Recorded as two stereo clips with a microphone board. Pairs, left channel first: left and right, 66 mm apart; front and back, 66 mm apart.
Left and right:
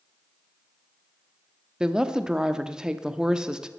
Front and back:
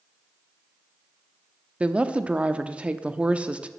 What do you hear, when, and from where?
1.8 s a woman speaking: 145° right, 0.7 m